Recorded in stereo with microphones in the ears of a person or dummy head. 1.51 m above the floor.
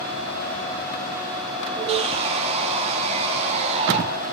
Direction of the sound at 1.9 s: 35° right (ahead or behind).